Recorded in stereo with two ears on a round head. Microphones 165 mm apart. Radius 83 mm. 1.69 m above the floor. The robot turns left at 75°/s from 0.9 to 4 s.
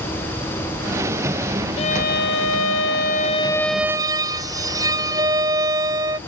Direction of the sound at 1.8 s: 145° left.